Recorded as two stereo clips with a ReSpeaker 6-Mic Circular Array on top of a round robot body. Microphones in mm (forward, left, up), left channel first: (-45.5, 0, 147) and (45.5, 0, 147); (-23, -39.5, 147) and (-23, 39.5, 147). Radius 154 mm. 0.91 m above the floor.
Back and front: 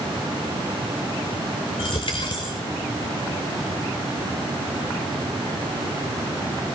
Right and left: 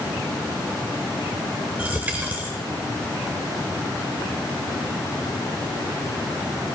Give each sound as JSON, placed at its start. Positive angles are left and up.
{"t": 1.8, "sound": "a dropped coin", "azimuth_deg": 155, "distance_m": 0.7}